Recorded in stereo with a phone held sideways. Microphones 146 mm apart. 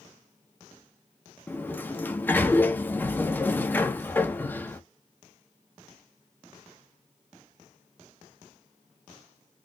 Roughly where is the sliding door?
Centre.